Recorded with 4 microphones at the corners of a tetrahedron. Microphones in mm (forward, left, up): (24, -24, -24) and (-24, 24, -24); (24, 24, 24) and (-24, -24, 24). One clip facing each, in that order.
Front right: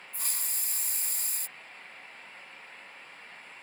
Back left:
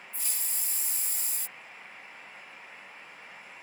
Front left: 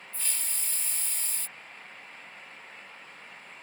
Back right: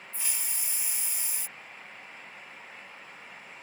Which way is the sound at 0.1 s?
60° right.